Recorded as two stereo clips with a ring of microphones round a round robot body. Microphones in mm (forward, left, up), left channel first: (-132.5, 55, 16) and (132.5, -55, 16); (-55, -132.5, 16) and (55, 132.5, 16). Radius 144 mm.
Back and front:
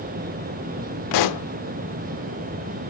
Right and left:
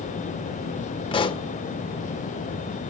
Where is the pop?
175° left, 0.6 m.